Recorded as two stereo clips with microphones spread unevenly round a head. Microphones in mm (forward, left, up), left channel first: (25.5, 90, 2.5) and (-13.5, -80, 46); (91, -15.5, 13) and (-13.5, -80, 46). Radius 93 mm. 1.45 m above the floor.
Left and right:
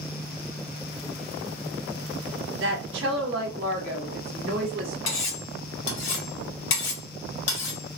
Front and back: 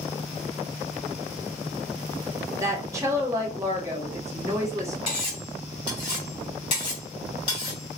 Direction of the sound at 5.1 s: 100° left.